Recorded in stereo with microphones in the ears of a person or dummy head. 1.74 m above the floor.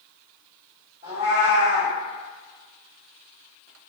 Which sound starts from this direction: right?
A cat meowing, at 1.0 s.